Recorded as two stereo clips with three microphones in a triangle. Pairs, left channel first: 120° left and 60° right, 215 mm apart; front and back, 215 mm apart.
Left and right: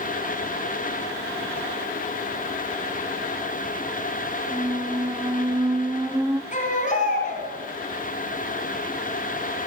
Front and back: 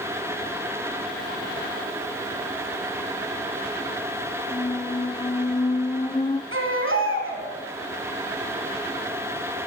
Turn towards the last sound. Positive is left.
turn(degrees=170)